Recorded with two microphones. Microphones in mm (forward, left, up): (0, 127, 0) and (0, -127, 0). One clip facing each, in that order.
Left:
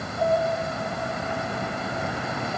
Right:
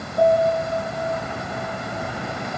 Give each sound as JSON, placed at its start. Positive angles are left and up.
{"t": 0.2, "sound": "a piano", "side_deg": -75, "distance_m": 3.5}